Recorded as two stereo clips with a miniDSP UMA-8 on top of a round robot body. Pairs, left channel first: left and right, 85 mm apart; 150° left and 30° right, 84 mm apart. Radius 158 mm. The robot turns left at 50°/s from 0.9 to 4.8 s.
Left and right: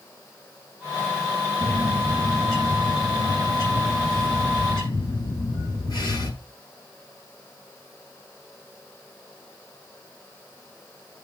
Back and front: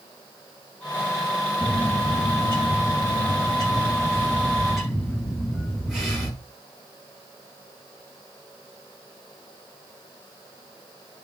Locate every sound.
1.6 s a bird: 145° right, 6 m; by 6.3 s 55° left, 6 m